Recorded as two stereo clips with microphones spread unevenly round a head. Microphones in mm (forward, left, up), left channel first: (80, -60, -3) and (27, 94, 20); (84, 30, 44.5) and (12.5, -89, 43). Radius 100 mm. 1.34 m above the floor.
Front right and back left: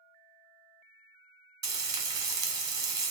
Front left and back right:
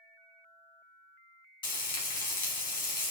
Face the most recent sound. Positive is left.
turn(degrees=90)